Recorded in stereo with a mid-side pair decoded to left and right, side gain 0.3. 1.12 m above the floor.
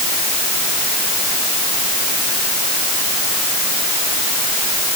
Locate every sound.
Only background noise.